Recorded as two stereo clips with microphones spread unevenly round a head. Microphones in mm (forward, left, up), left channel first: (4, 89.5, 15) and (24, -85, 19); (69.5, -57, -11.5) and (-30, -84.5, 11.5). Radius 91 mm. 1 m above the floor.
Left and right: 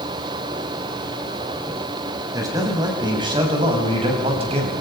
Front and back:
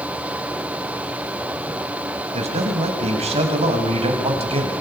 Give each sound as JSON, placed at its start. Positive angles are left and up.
{"t": 2.3, "sound": "a man speaking", "azimuth_deg": -155, "distance_m": 6.5}